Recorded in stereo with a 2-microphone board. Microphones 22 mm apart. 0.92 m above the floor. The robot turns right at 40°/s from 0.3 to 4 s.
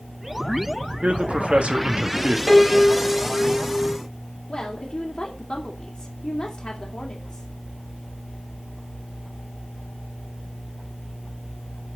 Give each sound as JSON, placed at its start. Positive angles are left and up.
{"t": 1.0, "sound": "a man speaking", "azimuth_deg": -95, "distance_m": 1.5}
{"t": 2.5, "sound": "a piano", "azimuth_deg": 15, "distance_m": 3.5}
{"t": 4.5, "sound": "a woman speaking", "side_deg": 40, "distance_m": 2.0}